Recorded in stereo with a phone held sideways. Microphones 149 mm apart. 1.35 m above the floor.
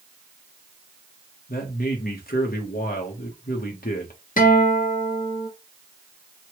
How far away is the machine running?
I don't hear a machine running.